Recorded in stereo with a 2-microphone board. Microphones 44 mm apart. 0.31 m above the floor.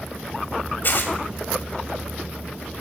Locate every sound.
0.8 s tearing paper: 45° left (ahead or behind), 1.0 m